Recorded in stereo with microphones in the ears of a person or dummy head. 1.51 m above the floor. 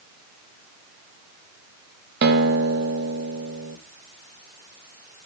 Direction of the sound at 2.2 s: 55° right (ahead or behind).